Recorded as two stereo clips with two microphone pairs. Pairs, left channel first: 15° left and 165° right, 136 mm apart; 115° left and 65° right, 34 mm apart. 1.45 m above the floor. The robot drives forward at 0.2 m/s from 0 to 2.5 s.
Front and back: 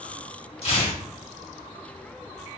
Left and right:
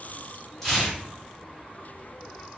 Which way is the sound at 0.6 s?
35° left.